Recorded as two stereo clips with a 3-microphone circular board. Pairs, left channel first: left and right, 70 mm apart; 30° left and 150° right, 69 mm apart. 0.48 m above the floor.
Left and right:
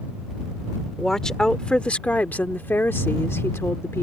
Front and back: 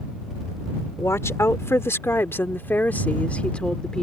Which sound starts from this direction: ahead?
A woman speaking, at 1.0 s.